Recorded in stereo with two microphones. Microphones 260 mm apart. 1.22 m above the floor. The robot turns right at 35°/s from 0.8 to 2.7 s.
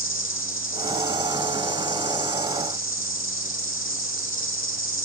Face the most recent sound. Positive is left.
turn(degrees=125)